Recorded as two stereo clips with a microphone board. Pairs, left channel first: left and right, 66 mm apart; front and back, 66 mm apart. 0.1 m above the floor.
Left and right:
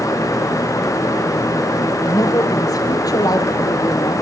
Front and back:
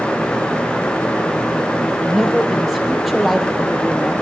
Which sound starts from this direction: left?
A woman speaking, at 2.0 s.